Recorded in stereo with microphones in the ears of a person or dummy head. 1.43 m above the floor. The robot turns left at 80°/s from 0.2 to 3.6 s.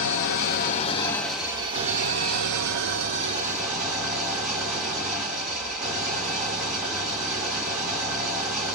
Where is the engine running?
95° left, 0.9 m; by 8.8 s straight behind, 0.9 m.